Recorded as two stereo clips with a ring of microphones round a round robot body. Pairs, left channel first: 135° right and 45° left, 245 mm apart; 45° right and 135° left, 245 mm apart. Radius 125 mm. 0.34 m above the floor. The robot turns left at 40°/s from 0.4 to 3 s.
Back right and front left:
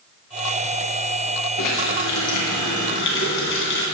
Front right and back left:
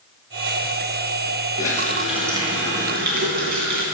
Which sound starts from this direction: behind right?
A running tap, at 1.6 s.